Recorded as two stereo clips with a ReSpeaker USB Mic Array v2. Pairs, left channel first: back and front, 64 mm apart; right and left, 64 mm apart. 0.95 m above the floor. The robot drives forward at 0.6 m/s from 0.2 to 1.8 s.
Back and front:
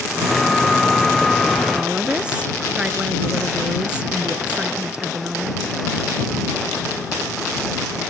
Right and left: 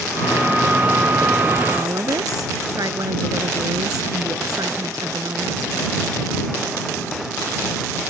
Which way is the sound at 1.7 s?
75° left.